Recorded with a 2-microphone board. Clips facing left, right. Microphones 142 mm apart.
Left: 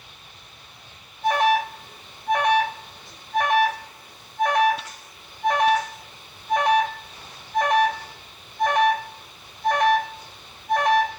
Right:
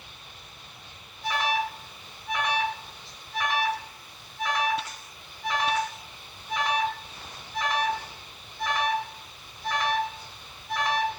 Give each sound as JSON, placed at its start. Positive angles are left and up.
{"t": 1.2, "sound": "an alarm", "side_deg": 55, "distance_m": 6.5}